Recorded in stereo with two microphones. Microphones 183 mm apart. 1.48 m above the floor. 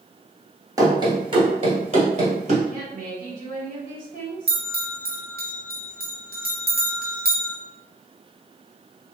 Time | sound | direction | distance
0.8 | running footsteps | 20° right (ahead or behind) | 1.5 m
2.7 | a woman speaking | 55° right (ahead or behind) | 2 m
4.5 | a bell | 60° right (ahead or behind) | 1.1 m